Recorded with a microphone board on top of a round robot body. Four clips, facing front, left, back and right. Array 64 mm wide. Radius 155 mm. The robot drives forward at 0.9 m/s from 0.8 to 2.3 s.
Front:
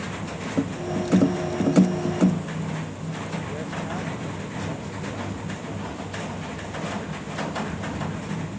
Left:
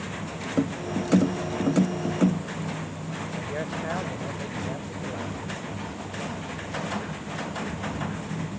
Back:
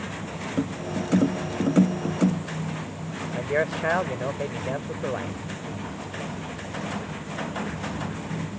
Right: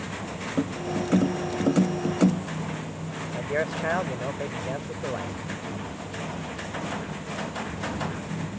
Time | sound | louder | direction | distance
3.3 | a man speaking | right 6 dB, back 10 dB | 160° right | ?